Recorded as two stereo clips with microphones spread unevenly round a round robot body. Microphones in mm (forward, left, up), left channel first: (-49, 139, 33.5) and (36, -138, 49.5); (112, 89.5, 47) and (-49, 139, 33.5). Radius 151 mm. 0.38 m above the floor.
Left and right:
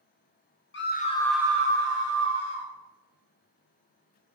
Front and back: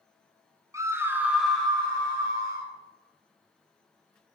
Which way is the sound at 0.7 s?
100° left.